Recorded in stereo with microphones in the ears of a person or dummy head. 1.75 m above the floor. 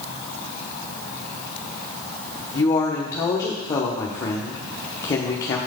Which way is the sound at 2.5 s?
20° left (ahead or behind).